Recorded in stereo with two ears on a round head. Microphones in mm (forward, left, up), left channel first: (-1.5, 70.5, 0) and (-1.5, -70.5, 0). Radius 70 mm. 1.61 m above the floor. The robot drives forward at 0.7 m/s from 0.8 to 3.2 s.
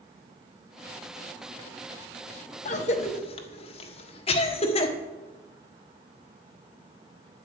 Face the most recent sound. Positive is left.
turn(degrees=40)  # may be behind; listen again after turning